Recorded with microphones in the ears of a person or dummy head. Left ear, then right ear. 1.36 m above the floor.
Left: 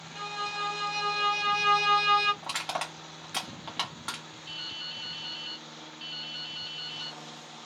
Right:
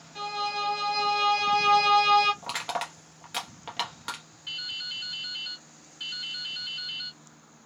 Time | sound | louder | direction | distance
0.1 | a violin | right 3 dB | 10° left (ahead or behind) | 1.6 m
2.4 | crushing | right 1 dB | 5° right (ahead or behind) | 0.9 m
4.5 | dripping | right 4 dB | 45° right (ahead or behind) | 1.1 m